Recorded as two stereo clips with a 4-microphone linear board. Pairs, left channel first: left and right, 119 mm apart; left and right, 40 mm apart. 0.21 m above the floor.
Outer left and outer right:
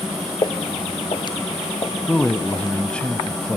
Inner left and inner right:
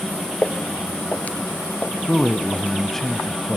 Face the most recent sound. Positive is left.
turn(degrees=10)  # may be behind; listen again after turning